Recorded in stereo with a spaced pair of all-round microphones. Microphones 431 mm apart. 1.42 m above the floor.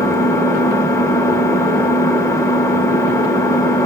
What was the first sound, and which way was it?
An engine running, 5° left (ahead or behind).